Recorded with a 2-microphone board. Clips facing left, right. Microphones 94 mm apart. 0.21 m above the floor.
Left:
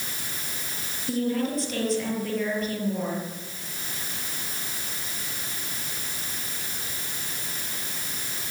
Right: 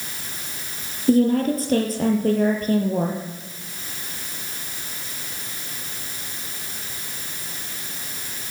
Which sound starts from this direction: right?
A woman speaking, at 1.1 s.